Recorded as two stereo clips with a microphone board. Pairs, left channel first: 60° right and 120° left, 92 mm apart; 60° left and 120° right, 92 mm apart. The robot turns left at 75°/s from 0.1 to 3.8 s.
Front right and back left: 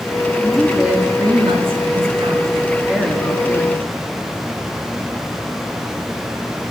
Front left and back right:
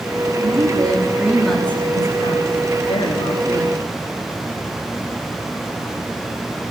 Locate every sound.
0.4 s a woman speaking: 130° right, 3 m; by 3.8 s 25° right, 3 m